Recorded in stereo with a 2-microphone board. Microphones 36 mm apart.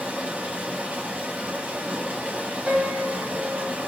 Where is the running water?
50° right (ahead or behind), 0.9 m.